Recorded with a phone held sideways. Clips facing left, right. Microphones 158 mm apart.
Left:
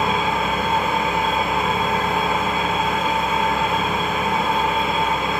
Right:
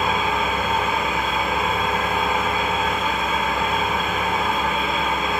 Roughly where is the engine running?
Left.